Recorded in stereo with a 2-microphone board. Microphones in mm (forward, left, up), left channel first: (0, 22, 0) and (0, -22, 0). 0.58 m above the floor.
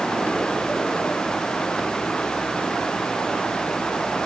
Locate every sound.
Only background noise.